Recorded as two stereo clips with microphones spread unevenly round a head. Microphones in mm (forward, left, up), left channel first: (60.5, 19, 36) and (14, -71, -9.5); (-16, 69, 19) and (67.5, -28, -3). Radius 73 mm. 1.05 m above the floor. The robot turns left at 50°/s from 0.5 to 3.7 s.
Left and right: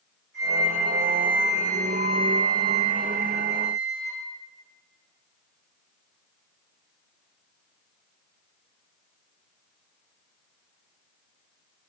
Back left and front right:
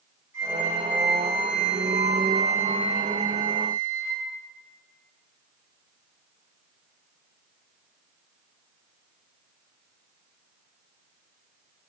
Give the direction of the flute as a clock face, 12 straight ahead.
8 o'clock.